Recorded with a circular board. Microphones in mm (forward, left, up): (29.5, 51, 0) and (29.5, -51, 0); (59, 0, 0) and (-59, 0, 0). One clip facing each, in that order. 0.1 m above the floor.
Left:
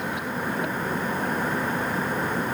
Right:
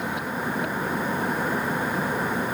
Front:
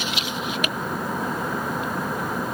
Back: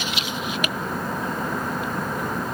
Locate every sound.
Only background noise.